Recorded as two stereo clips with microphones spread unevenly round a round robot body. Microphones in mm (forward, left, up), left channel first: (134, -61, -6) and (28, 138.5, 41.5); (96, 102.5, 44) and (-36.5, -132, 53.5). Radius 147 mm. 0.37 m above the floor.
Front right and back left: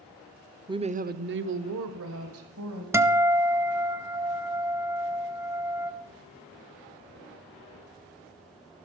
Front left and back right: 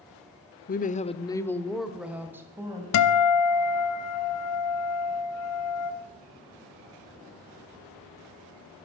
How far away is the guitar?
About 1.2 m.